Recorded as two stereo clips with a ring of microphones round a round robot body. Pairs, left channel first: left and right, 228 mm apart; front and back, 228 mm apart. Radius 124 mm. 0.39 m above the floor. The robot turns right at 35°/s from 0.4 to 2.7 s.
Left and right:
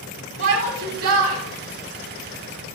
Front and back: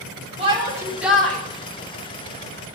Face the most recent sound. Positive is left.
turn(degrees=-35)